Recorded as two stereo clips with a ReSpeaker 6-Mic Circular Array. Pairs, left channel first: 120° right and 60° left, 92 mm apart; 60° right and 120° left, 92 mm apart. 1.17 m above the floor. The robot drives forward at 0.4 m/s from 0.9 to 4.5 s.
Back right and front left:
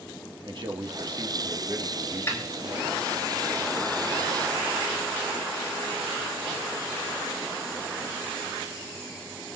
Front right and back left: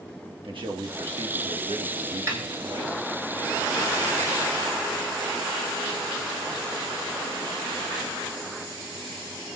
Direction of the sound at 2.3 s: 175° left.